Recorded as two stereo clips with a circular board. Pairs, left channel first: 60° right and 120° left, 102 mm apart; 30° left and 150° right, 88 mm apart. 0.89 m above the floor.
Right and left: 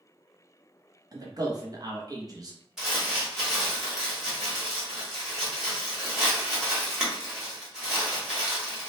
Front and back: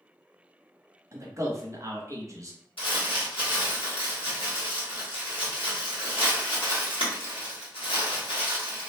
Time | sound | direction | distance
1.1 | a man speaking | 165° left | 0.7 m
2.8 | crumpling | 35° left | 1.1 m